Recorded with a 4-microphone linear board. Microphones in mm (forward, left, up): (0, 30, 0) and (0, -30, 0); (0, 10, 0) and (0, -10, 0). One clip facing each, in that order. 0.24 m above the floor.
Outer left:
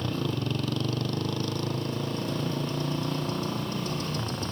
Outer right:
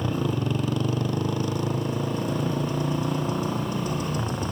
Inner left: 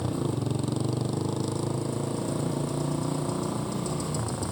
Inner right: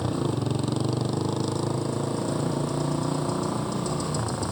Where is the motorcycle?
15° right (ahead or behind).